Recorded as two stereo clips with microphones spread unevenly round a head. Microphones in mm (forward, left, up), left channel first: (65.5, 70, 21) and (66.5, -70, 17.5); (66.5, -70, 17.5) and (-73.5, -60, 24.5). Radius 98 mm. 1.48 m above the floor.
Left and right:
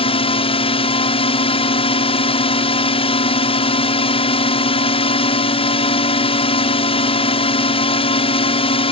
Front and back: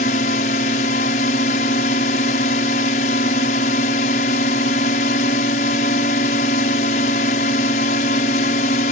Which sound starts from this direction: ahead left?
A drone, at 0.0 s.